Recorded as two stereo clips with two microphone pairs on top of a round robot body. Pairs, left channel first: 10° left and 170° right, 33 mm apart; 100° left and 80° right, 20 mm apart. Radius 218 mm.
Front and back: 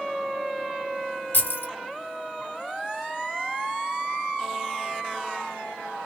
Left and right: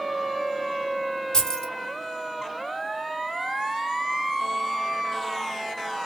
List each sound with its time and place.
1.3 s keys jangling: 45° left, 1.1 m